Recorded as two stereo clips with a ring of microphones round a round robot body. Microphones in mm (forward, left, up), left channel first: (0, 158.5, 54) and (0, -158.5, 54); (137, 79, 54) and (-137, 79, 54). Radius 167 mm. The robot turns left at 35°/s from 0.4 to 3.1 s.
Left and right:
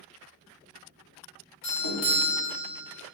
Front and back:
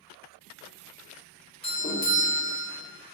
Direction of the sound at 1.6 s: 65° left.